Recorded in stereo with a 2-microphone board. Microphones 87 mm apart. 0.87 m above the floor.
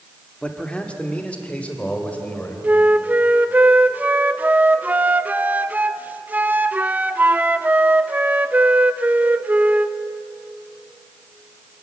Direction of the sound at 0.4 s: 15° left (ahead or behind).